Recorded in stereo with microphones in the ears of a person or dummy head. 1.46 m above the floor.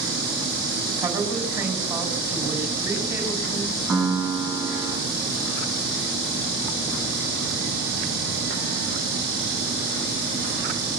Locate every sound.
1.0 s a woman speaking: 20° right (ahead or behind), 6.5 m
3.9 s a piano: centre (ahead or behind), 7.5 m